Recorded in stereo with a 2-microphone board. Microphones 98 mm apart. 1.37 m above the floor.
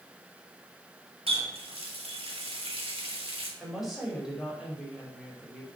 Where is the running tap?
75° right (ahead or behind), 2.5 m.